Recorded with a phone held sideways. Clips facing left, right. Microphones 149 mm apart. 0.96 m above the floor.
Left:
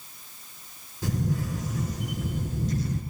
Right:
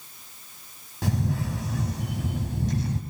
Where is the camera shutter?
75° right (ahead or behind), 3.5 m.